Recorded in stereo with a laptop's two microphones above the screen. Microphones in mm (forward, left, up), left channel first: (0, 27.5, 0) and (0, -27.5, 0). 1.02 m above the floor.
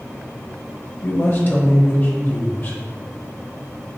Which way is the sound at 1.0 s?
40° left (ahead or behind).